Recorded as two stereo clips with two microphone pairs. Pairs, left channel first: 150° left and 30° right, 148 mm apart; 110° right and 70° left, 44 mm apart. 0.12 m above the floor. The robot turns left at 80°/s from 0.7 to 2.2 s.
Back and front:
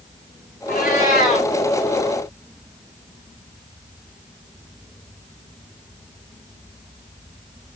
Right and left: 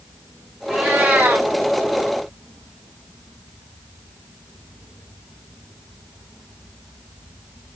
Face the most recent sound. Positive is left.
turn(degrees=35)